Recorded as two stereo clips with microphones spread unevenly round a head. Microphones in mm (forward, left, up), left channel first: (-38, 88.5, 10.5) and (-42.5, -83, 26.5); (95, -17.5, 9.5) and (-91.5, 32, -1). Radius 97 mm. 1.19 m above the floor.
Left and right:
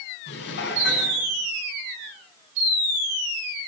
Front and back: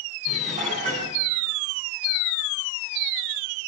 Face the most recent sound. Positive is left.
turn(degrees=110)